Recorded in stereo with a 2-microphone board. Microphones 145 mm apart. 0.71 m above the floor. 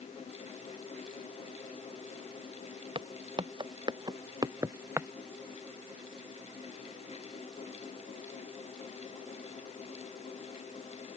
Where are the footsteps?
35° right (ahead or behind); by 5.1 s 15° right (ahead or behind).